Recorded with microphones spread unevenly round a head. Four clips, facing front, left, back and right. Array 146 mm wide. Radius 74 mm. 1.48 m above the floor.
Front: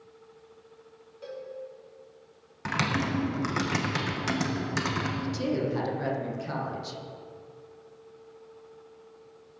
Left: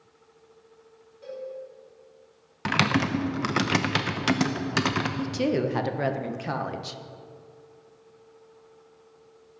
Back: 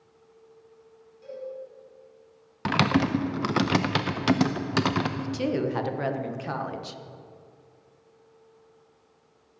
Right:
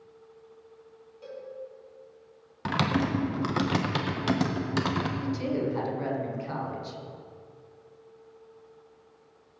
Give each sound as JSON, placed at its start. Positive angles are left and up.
{"t": 1.2, "sound": "a cowbell", "azimuth_deg": 0, "distance_m": 4.5}
{"t": 2.6, "sound": "typing on a keyboard", "azimuth_deg": 170, "distance_m": 0.6}
{"t": 5.2, "sound": "a woman speaking", "azimuth_deg": 100, "distance_m": 1.2}